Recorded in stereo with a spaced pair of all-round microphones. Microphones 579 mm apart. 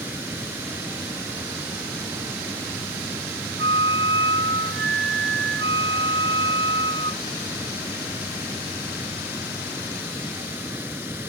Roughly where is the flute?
Right.